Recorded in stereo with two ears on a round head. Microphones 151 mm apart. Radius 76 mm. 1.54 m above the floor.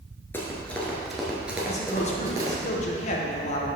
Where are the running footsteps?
15° left (ahead or behind), 1.6 m; by 2.6 s 25° right (ahead or behind), 1.8 m.